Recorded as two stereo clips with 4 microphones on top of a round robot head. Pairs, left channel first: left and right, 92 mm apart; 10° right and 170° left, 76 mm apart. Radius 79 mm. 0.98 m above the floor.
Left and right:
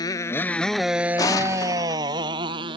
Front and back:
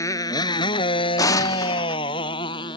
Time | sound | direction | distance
0.0 | a motorcycle | 35° left | ?
1.2 | an explosion | 30° left | ?